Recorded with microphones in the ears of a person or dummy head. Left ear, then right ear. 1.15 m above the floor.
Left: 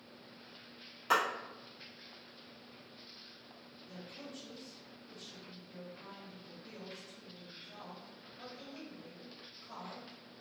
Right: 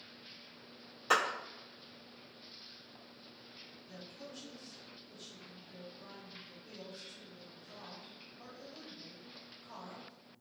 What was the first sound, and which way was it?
A clap, centre (ahead or behind).